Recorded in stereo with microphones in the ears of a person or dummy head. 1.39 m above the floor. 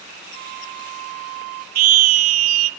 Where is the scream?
85° right, 0.8 m.